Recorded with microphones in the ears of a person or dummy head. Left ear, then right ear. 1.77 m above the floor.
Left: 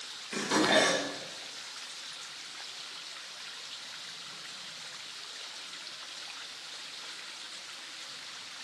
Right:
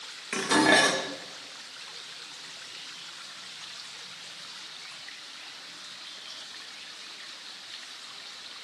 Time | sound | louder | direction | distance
0.3 | dishes clattering | right 5 dB | 35° right (ahead or behind) | 1.8 m